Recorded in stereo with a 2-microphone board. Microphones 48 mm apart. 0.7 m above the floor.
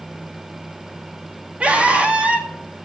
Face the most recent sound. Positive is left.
turn(degrees=-20)  # may be behind; listen again after turning